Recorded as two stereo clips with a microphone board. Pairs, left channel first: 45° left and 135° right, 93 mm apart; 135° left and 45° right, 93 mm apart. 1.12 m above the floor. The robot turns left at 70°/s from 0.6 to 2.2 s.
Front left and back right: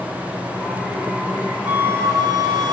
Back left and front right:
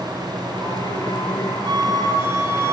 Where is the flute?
60° right, 1.7 m; by 2.8 s 100° right, 1.7 m.